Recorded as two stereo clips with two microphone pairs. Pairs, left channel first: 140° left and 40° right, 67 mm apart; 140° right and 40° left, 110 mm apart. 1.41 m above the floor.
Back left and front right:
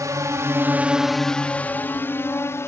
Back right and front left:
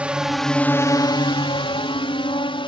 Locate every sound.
0.0 s a drone: 40° right; by 2.7 s 175° right